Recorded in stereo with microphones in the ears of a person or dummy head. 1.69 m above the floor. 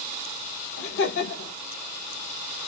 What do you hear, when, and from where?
0.8 s laughter: 65° left (ahead or behind), 1.4 m